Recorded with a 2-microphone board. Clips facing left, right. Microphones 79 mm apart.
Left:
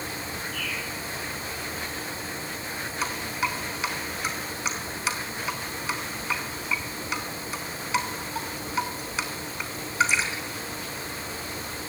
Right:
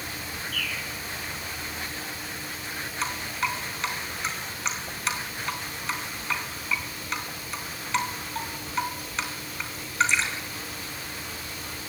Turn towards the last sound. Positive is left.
turn(degrees=5)  # may be behind; listen again after turning